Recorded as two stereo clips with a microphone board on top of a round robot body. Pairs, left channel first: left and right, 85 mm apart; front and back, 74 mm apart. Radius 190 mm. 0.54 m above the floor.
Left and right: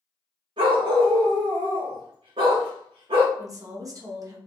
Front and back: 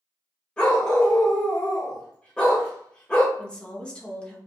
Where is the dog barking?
80° right, 0.6 m.